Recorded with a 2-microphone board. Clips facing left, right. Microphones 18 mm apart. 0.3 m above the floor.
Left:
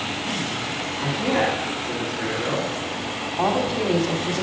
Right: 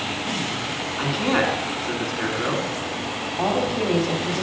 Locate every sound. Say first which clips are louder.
1.0 s a man speaking: right 1 dB; 45° right (ahead or behind), 3 m
3.4 s a woman speaking: left 1 dB; 10° left (ahead or behind), 1.4 m